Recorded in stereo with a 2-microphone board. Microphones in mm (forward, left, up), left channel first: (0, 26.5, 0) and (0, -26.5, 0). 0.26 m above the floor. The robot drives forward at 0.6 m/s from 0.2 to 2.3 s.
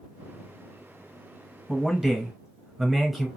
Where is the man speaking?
5° right (ahead or behind), 1.2 m.